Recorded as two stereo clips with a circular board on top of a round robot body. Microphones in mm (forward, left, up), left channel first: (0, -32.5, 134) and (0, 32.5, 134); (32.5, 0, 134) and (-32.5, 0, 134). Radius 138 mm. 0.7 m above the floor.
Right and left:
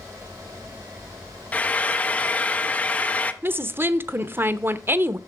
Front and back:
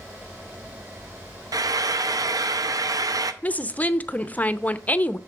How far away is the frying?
About 0.7 m.